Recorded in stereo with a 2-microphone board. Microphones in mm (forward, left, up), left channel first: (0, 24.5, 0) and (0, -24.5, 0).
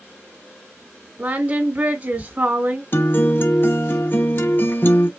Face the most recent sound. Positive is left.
turn(degrees=45)  # may be behind; listen again after turning